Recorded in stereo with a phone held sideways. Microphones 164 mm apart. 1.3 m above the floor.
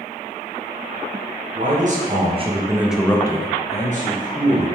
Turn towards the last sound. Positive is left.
turn(degrees=60)  # may be behind; listen again after turning